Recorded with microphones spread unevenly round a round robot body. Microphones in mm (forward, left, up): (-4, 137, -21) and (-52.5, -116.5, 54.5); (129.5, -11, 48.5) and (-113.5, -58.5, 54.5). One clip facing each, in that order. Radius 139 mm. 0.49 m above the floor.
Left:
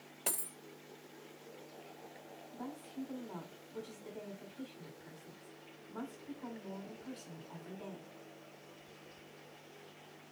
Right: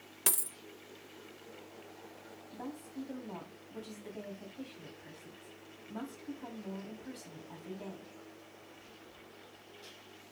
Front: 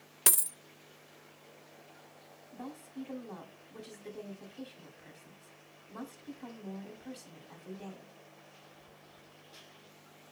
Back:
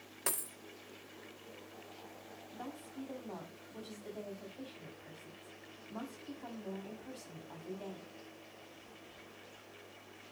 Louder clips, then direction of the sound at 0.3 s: Right 3 dB, front 3 dB; 35° right.